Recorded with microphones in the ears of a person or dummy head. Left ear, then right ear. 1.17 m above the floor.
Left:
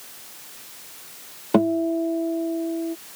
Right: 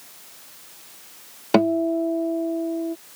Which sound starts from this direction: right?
A guitar, at 1.5 s.